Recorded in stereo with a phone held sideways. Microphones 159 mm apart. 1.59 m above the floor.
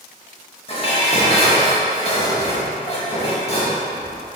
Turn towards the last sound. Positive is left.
turn(degrees=40)  # may be behind; listen again after turning